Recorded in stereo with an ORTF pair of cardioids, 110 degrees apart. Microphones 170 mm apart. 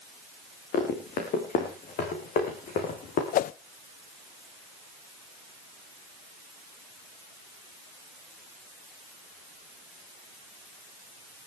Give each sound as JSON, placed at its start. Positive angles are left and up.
{"t": 0.7, "sound": "running footsteps", "azimuth_deg": 65, "distance_m": 6.0}
{"t": 3.3, "sound": "a whoosh", "azimuth_deg": 55, "distance_m": 0.6}